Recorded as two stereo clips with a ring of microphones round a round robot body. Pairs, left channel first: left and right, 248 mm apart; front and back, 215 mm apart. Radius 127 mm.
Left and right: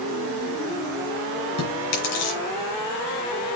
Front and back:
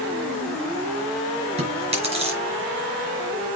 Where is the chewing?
120° left, 4.5 m.